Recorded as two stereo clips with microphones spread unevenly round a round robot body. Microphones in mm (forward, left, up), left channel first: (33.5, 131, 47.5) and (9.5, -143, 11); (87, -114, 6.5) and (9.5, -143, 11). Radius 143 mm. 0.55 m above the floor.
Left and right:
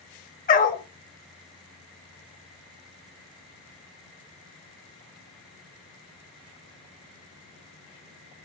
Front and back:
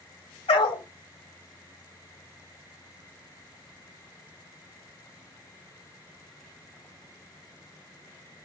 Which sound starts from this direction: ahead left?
A dog barking, at 0.5 s.